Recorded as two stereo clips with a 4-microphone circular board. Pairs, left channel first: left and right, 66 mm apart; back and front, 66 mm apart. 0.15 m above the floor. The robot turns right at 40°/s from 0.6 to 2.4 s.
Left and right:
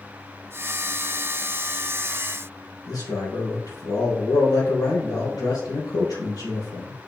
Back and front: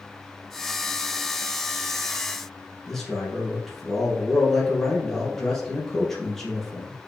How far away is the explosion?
No explosion in this recording.